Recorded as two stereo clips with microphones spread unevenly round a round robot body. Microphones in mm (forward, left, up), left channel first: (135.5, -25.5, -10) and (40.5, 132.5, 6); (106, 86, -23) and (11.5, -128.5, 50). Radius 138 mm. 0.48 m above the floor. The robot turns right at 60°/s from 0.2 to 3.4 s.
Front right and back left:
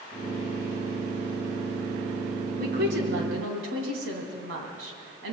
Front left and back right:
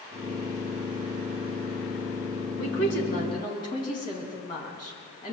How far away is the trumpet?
I don't hear a trumpet.